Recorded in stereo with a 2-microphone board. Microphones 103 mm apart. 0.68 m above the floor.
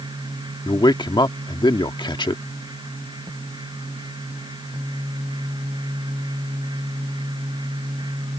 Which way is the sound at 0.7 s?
50° left (ahead or behind).